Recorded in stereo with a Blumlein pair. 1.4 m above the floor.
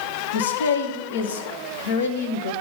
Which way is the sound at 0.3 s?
60° left.